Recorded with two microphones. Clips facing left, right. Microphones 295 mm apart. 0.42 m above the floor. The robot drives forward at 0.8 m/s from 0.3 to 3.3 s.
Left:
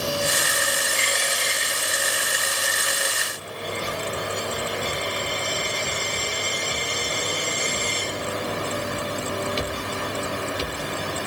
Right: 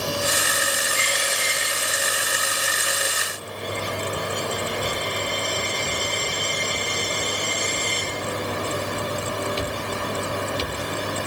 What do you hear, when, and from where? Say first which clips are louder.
0.9 s a dropped coin: even; 80° left, 5 m; by 8.1 s 65° left (ahead or behind), 6 m